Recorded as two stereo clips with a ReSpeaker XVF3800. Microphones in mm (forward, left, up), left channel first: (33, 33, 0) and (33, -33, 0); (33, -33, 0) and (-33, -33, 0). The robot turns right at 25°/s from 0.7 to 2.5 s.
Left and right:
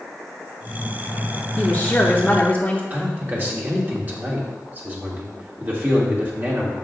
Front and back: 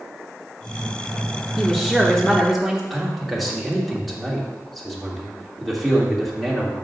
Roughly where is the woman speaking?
Left.